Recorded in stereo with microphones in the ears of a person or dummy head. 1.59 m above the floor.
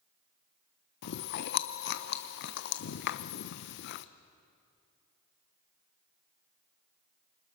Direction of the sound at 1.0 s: 50° left (ahead or behind).